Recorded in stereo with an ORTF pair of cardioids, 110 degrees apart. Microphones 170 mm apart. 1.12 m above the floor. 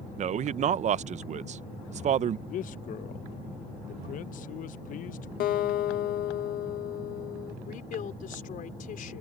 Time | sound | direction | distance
0.2 | a man speaking | 45° right | ?
2.5 | a man speaking | 50° left | ?
5.4 | a guitar | 60° left | ?
7.7 | a woman speaking | 55° left | ?